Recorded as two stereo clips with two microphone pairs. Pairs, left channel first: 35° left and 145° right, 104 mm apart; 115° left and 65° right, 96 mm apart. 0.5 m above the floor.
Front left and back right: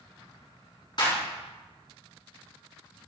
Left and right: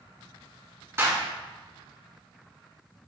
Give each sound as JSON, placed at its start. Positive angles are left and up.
{"t": 1.0, "sound": "a clap", "azimuth_deg": -5, "distance_m": 4.5}